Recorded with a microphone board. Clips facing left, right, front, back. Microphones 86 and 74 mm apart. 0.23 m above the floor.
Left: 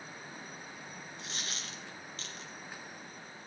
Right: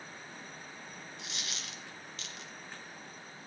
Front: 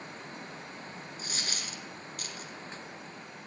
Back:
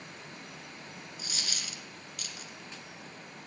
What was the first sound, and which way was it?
A dropped coin, 45° left.